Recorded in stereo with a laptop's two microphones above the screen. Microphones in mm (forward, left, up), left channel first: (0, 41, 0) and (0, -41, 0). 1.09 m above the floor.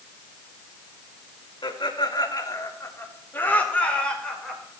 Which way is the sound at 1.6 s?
70° left (ahead or behind).